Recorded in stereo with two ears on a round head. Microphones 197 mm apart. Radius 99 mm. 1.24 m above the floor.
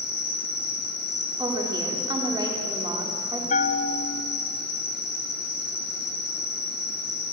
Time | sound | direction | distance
0.0 | an insect | 50° left (ahead or behind) | 4 m
1.4 | a woman speaking | 20° right (ahead or behind) | 3.5 m
3.5 | a bell | 35° left (ahead or behind) | 0.8 m